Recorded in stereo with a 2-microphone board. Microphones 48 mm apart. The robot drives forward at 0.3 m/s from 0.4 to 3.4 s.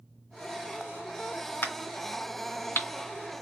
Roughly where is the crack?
Left.